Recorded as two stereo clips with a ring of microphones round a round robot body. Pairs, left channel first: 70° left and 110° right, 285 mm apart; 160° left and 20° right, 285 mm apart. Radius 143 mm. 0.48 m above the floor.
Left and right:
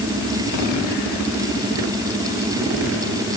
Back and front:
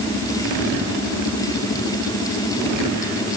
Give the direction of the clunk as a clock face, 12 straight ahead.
No clunk in this recording.